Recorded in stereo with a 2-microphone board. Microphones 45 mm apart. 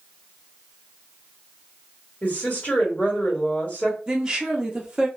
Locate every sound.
2.2 s a woman speaking: 40° left (ahead or behind), 1.6 m
4.1 s a woman speaking: 15° right (ahead or behind), 0.6 m